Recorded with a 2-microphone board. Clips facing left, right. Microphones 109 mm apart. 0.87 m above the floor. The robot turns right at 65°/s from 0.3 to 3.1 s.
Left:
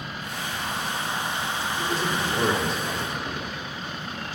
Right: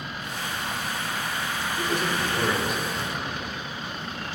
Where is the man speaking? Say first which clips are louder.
Right 1 dB; 30° right, 2 m; by 3.5 s 55° left, 2 m.